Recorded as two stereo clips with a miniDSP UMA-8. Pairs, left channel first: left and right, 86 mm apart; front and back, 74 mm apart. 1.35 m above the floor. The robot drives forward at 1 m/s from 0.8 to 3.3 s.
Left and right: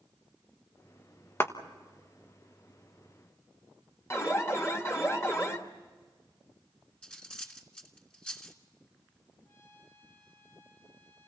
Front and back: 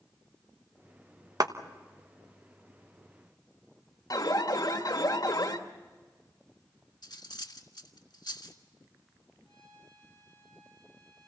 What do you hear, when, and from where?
1.4 s a clap: 150° left, 1.1 m
4.1 s an alarm: 30° left, 1.7 m
7.0 s cutlery clinking: 10° left, 1.7 m
9.4 s a trumpet: 150° left, 9 m